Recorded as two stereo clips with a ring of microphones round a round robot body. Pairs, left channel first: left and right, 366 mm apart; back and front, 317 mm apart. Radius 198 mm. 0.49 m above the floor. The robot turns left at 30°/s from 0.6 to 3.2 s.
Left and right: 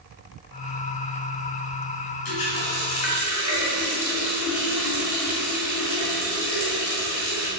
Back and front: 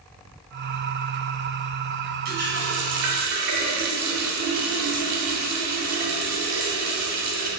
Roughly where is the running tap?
Ahead left.